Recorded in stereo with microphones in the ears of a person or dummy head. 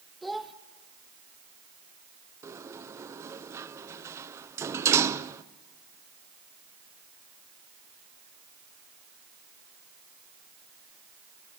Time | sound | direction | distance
0.2 | a child speaking | centre (ahead or behind) | 0.7 m
2.4 | a sliding door | 15° right (ahead or behind) | 0.5 m